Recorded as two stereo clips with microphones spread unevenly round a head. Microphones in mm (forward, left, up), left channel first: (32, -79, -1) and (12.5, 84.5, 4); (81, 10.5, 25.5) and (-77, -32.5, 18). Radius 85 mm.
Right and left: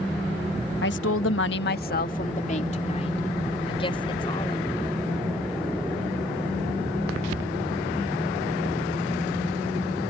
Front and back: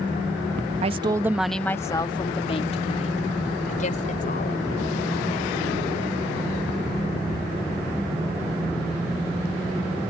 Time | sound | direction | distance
0.8 | a woman speaking | 115° right | ?